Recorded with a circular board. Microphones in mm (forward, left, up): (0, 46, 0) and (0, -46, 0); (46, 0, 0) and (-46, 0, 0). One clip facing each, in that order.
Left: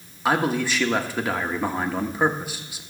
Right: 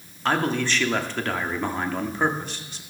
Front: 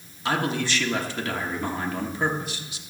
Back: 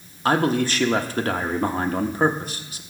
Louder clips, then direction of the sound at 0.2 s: Left 1 dB, back 6 dB; 170° left.